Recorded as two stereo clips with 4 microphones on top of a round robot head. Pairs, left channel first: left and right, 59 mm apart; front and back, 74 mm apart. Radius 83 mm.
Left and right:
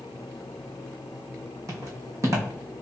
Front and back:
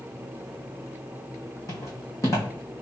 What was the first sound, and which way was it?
Footsteps, 55° right.